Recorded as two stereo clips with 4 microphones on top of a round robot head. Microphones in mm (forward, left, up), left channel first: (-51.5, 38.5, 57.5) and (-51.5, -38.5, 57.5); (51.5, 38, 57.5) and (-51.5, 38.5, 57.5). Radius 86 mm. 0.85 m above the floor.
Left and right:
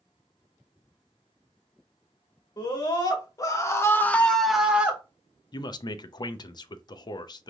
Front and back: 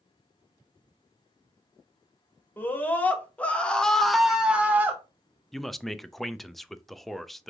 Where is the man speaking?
90° left, 0.5 m.